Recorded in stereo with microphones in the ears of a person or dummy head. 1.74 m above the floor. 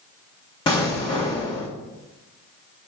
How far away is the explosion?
About 1.7 m.